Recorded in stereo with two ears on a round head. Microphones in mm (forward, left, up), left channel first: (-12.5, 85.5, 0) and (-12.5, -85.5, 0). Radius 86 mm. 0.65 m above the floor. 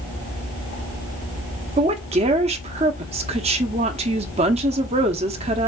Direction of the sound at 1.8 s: 35° right (ahead or behind).